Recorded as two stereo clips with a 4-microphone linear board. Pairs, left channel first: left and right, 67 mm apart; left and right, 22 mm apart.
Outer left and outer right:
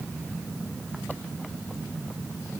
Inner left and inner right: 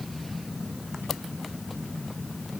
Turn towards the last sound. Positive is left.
No sound to turn to.